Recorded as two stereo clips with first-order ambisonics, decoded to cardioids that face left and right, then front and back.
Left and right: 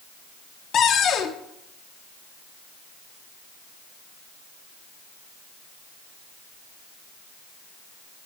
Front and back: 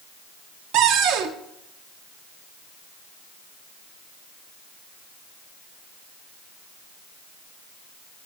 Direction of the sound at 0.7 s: 145° left.